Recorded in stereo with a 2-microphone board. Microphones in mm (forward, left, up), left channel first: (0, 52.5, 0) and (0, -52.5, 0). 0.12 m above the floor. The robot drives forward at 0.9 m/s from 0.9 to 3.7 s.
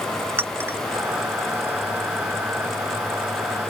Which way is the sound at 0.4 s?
20° right (ahead or behind).